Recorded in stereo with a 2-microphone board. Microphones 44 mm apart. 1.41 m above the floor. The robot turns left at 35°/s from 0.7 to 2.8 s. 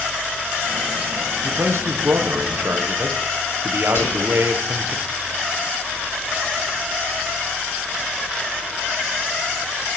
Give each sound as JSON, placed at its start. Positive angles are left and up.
{"t": 1.4, "sound": "a man speaking", "azimuth_deg": -75, "distance_m": 0.9}
{"t": 4.0, "sound": "whispering", "side_deg": 70, "distance_m": 4.5}